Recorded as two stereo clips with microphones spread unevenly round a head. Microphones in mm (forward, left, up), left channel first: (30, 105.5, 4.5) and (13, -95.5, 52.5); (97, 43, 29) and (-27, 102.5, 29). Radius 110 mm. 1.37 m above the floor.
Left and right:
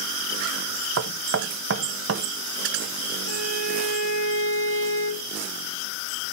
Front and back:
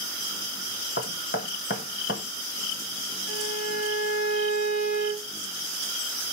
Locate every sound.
1.0 s knocking: 65° right, 0.8 m
3.3 s a violin: 45° right, 3 m